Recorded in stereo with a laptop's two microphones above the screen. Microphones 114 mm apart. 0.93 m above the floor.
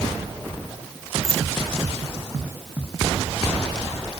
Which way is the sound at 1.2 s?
25° right (ahead or behind).